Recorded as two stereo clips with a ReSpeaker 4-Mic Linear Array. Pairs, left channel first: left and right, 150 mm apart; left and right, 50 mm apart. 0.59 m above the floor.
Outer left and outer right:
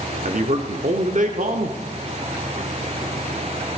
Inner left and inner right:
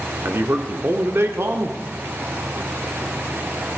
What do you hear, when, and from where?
0.2 s a man speaking: 55° right (ahead or behind), 1.4 m